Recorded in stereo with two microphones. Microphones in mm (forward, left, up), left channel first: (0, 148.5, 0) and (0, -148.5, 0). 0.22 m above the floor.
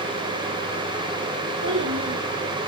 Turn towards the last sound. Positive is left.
turn(degrees=-75)  # may be behind; listen again after turning